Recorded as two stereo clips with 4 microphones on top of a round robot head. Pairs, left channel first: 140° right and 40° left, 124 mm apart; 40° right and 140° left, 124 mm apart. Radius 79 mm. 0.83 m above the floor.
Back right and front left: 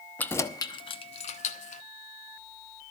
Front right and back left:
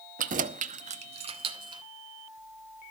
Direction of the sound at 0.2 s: 140° left.